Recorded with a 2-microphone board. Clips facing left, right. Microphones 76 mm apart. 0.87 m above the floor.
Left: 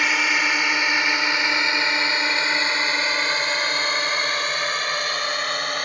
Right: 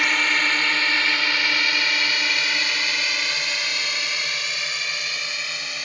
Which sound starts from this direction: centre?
A drone, at 0.0 s.